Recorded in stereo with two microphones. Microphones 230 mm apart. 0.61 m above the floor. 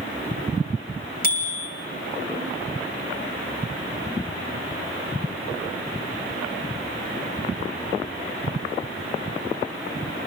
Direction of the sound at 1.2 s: 35° left (ahead or behind).